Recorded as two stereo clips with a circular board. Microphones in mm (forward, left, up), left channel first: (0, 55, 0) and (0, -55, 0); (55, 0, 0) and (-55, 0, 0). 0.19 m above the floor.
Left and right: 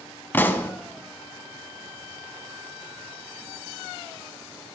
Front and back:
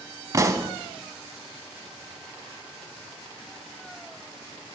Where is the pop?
150° left, 0.8 m.